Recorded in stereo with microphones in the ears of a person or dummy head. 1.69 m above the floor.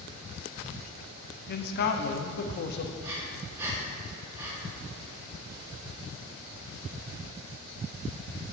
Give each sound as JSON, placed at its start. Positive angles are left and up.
{"t": 1.5, "sound": "a man speaking", "side_deg": 50, "distance_m": 0.5}
{"t": 3.0, "sound": "breathing", "side_deg": -10, "distance_m": 1.1}